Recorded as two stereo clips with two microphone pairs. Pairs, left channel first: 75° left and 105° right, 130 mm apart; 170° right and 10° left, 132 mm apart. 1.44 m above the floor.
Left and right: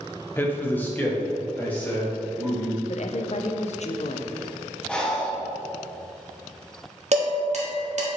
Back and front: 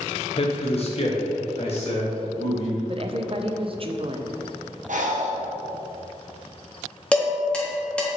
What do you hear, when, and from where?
0.4 s a man speaking: 145° left, 0.7 m; by 2.8 s 150° left, 2 m
2.9 s a woman speaking: 50° left, 0.6 m
4.9 s breathing: 10° right, 1.0 m
7.1 s dishes clattering: 90° right, 1.4 m